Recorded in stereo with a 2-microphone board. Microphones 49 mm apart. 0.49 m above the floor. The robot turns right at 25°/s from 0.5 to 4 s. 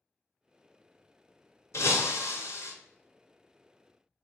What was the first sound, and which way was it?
Breaking glass, 65° left (ahead or behind).